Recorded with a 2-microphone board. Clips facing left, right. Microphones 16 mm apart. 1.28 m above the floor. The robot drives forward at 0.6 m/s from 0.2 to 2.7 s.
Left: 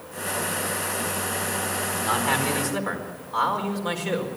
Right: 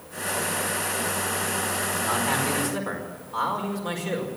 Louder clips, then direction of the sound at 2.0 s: Left 3 dB; 15° left (ahead or behind).